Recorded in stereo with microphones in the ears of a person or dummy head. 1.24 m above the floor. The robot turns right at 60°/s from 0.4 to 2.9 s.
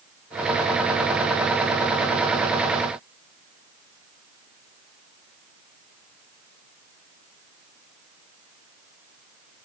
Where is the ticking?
I don't hear ticking.